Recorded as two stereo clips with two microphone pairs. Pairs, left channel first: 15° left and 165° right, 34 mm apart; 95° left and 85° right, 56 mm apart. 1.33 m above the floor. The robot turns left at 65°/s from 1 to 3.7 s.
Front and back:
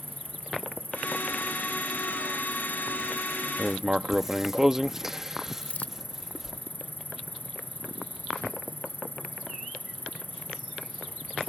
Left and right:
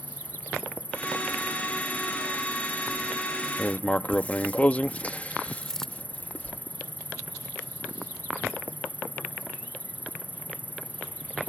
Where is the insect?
155° right; by 11.5 s 30° left.